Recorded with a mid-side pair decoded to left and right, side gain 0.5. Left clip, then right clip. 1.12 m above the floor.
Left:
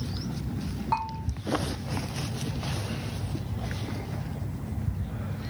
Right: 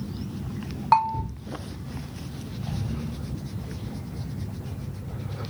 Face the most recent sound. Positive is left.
turn(degrees=-55)